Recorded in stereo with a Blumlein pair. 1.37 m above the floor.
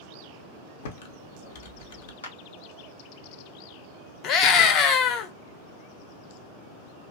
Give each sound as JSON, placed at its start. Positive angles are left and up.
{"t": 0.8, "sound": "typing on a keyboard", "azimuth_deg": 55, "distance_m": 0.6}
{"t": 2.2, "sound": "a clap", "azimuth_deg": 70, "distance_m": 0.6}
{"t": 4.2, "sound": "a scream", "azimuth_deg": 35, "distance_m": 0.7}